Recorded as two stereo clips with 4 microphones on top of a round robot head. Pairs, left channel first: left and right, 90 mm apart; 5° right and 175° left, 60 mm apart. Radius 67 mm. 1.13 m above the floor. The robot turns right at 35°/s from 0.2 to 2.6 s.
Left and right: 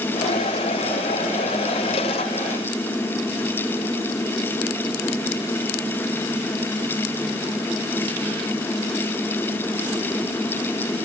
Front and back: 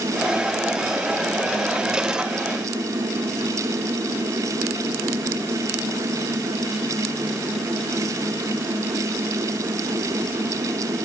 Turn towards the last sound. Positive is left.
No sound to turn to.